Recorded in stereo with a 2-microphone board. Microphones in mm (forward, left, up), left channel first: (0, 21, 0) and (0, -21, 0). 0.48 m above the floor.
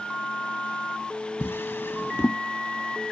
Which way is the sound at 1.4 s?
75° left (ahead or behind).